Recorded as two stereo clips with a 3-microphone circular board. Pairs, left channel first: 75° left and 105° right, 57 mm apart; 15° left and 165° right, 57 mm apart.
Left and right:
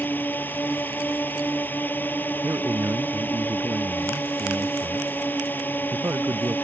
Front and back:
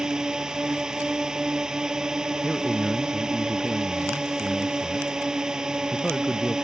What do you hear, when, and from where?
0.0 s a drone: 120° left
2.4 s a man speaking: 60° right